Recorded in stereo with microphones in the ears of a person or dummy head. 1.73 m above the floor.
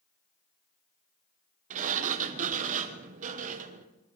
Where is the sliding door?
45° right (ahead or behind), 1.3 m.